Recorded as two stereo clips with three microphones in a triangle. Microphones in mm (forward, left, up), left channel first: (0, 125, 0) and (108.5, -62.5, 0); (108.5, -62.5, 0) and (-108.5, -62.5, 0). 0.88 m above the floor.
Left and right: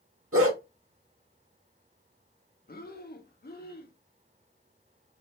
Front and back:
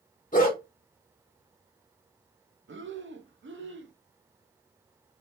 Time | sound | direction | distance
0.3 | a dog barking | 50° right | 1.4 m
2.7 | breathing | 160° left | 0.5 m